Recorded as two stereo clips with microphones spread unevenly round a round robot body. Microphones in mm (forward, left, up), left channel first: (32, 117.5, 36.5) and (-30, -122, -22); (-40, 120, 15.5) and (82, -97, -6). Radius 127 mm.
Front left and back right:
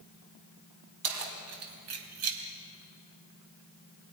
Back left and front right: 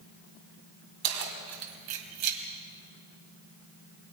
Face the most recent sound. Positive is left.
turn(degrees=-80)